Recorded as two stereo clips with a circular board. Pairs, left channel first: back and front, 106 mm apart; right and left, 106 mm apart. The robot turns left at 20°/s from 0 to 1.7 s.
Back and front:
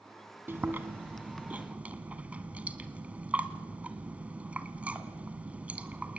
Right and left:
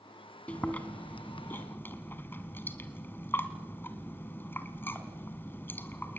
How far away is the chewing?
About 1.6 m.